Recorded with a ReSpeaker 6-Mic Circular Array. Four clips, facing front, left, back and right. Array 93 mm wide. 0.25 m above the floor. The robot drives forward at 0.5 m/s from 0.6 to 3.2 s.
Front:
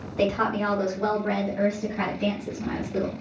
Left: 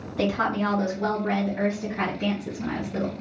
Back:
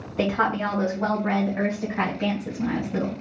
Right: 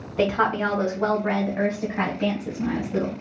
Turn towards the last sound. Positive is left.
turn(degrees=-155)